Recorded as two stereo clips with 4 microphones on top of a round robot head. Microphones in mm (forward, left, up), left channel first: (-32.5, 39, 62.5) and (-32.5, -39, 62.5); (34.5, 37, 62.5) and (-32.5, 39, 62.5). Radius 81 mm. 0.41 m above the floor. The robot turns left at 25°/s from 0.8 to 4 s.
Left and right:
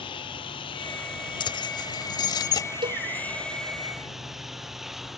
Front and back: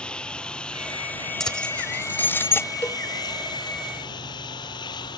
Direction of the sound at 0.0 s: 75° left.